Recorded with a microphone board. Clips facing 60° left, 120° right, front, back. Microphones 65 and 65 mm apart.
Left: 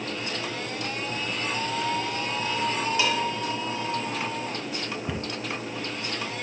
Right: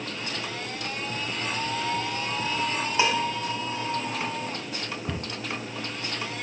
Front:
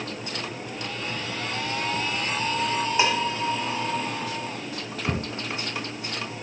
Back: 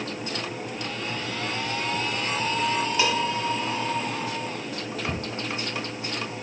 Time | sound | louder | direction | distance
3.0 | dishes clattering | right 4 dB, front 2 dB | 65° right | 1.4 m
5.1 | a cupboard door | left 1 dB, front 5 dB | 25° right | 1.1 m